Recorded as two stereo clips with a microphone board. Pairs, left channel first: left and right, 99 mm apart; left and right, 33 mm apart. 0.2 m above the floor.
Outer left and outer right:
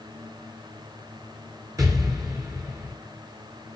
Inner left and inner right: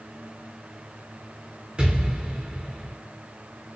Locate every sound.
1.8 s an explosion: 35° right (ahead or behind), 4 m